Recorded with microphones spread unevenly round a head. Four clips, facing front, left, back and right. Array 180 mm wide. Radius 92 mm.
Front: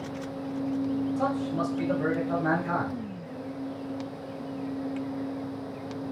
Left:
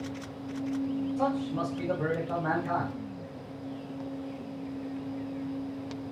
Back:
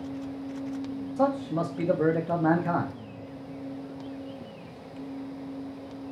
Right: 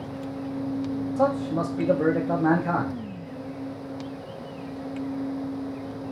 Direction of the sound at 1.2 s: 120° right.